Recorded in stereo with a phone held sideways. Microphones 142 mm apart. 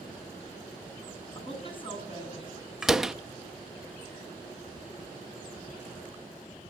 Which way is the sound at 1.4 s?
35° left (ahead or behind).